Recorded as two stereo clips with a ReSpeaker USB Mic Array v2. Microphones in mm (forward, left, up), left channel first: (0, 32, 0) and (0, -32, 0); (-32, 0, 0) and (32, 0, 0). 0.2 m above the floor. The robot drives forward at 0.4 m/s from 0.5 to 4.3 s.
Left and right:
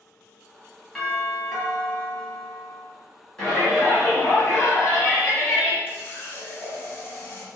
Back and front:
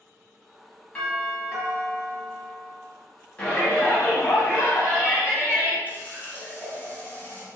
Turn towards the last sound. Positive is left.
turn(degrees=130)